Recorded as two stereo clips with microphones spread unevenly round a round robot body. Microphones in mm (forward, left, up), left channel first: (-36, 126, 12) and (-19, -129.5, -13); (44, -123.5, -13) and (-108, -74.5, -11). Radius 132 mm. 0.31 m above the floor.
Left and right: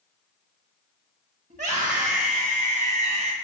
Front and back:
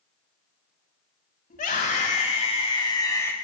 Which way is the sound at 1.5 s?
30° right.